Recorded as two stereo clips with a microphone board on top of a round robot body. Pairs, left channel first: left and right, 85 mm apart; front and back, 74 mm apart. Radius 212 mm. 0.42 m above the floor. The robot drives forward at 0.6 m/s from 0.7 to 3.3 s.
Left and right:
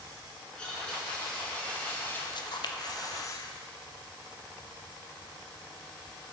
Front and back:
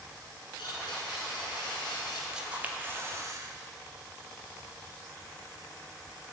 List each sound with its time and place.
0.6 s a blender: 10° left, 1.7 m; by 2.2 s 20° left, 0.8 m
2.3 s a camera shutter: 100° left, 0.9 m; by 3.5 s 135° left, 1.2 m